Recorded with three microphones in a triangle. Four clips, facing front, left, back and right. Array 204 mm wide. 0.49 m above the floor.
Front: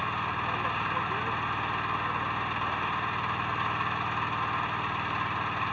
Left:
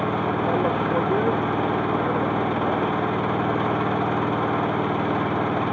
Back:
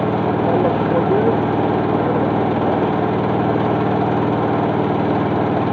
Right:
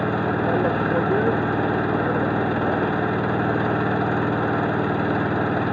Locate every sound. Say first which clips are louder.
0.0 s an engine running: right 1 dB, back 14 dB; 175° right